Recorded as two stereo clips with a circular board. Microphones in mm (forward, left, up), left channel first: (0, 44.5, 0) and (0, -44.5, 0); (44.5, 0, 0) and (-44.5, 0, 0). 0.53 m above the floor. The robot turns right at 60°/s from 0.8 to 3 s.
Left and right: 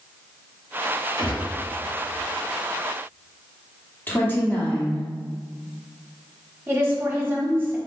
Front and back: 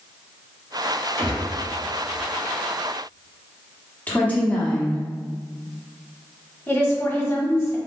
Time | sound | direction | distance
1.2 | a gunshot | 45° right | 2.0 m
4.1 | a woman speaking | 50° left | 1.0 m
6.7 | a woman speaking | 40° right | 1.1 m